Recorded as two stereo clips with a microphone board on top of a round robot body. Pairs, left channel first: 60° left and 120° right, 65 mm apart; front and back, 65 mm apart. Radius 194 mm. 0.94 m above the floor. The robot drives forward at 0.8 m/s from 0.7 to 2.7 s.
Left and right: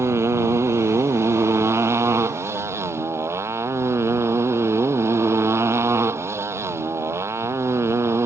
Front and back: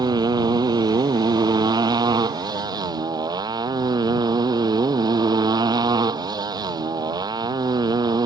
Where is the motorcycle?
170° right.